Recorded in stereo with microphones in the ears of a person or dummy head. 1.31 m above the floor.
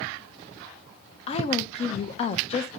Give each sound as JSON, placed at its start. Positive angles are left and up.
{"t": 1.3, "sound": "a woman speaking", "side_deg": 40, "distance_m": 0.7}